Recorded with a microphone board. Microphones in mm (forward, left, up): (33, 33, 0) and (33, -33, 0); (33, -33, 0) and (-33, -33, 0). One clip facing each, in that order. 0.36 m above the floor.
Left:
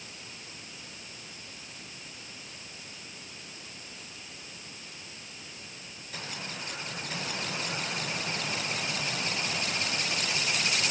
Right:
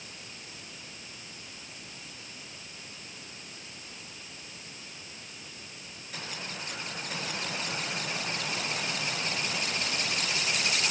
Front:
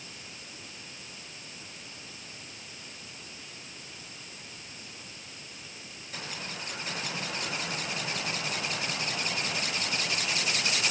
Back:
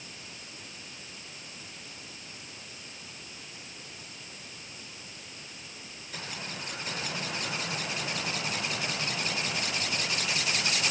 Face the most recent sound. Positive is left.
No sound to turn to.